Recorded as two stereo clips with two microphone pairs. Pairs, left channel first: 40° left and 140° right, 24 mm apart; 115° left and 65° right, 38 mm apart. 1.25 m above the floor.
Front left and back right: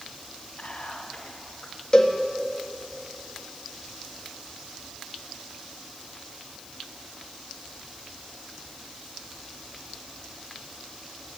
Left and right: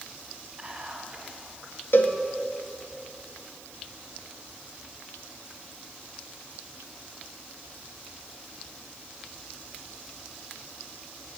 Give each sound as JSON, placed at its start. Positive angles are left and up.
{"t": 0.6, "sound": "whispering", "azimuth_deg": 5, "distance_m": 1.7}
{"t": 1.9, "sound": "a cowbell", "azimuth_deg": 100, "distance_m": 1.4}